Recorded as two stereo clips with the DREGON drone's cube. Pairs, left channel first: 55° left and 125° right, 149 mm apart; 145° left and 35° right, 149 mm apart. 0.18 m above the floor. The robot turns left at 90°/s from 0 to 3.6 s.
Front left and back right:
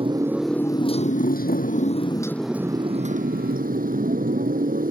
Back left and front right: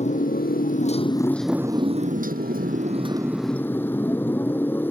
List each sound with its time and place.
0.0 s a motorcycle: 175° right; by 4.9 s 140° right